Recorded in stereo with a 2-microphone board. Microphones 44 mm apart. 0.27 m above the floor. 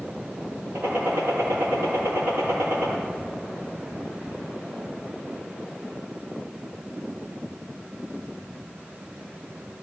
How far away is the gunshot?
About 5.5 m.